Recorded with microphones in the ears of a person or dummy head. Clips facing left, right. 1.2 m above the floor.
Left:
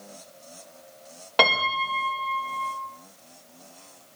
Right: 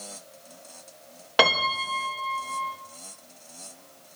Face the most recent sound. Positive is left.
turn(degrees=-5)  # may be behind; listen again after turning